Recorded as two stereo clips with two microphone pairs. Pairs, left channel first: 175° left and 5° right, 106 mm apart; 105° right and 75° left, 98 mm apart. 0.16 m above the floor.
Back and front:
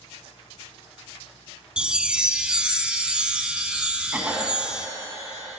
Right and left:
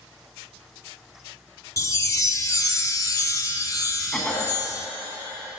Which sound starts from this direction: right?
A chime, at 1.8 s.